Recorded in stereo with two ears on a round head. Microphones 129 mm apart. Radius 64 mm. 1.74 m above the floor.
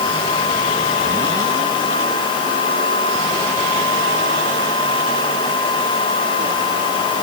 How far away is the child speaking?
No child speaking in this recording.